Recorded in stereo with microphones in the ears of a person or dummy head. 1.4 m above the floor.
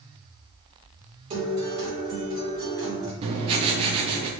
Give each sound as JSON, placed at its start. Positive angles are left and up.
{"t": 1.3, "sound": "a guitar", "side_deg": -40, "distance_m": 1.6}
{"t": 3.2, "sound": "writing", "side_deg": -35, "distance_m": 0.7}